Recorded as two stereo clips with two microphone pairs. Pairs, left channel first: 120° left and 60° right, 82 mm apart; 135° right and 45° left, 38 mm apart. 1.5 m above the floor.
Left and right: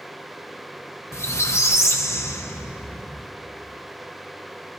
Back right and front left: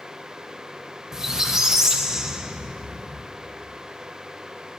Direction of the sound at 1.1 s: 110° left.